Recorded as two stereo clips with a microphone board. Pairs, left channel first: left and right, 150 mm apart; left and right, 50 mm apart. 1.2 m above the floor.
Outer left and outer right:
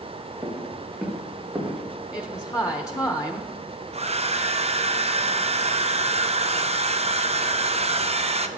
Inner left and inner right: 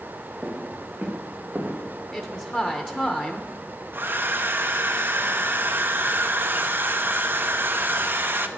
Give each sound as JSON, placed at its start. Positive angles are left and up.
{"t": 0.4, "sound": "footsteps", "side_deg": -5, "distance_m": 3.5}
{"t": 2.1, "sound": "a woman speaking", "side_deg": 25, "distance_m": 0.9}
{"t": 3.9, "sound": "a hair dryer", "side_deg": -45, "distance_m": 0.7}